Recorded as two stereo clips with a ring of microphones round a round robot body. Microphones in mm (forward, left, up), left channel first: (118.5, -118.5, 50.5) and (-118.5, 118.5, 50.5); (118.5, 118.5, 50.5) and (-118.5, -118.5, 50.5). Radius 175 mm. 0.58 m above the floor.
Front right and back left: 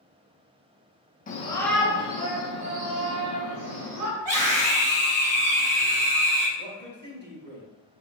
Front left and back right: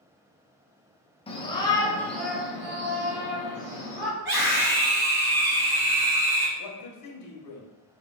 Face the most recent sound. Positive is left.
turn(degrees=80)